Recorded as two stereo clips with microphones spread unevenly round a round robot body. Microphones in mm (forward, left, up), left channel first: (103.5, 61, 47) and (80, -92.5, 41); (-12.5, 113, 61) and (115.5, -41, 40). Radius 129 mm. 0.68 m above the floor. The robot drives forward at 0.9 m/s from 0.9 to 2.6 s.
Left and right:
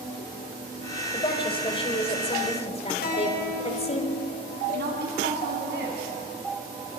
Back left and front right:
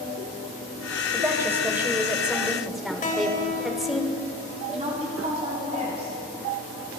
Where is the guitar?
80° left, 3 m.